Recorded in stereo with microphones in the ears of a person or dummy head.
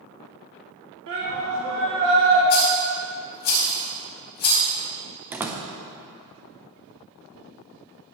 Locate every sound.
1.1 s a shout: 70° right (ahead or behind), 1.7 m
2.5 s a rattle: 55° left (ahead or behind), 4 m
5.3 s a door slam: 10° right (ahead or behind), 0.5 m